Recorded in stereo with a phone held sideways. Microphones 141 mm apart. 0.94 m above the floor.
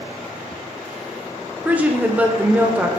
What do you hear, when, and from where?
1.6 s a woman speaking: 10° right (ahead or behind), 0.5 m